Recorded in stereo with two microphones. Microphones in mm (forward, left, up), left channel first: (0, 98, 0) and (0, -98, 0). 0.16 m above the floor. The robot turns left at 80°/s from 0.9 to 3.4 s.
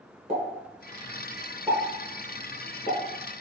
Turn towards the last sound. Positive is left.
turn(degrees=25)  # may be behind; listen again after turning